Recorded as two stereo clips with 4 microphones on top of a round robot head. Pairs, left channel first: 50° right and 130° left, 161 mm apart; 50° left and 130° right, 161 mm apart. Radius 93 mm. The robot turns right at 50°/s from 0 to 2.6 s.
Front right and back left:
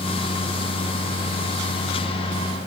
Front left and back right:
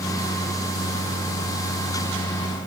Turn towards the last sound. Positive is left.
No sound to turn to.